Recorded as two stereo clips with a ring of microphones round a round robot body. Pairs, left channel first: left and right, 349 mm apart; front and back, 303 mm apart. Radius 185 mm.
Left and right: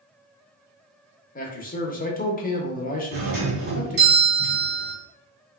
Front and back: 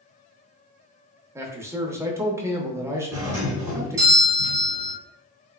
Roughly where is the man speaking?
Left.